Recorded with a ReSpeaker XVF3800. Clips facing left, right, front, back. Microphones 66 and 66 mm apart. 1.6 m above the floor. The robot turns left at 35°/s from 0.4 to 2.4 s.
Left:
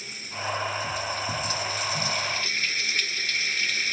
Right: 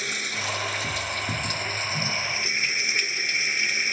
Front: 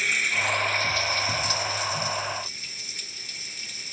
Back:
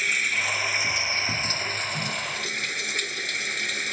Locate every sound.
0.0 s running water: 90° right; by 3.9 s 160° right